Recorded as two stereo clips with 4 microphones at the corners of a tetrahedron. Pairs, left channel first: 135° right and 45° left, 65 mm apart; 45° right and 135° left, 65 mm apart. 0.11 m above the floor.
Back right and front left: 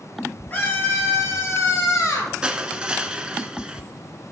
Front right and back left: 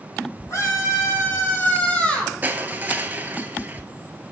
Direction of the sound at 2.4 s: 105° left.